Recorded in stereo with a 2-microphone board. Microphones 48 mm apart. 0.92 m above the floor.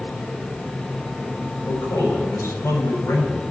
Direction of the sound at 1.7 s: 80° left.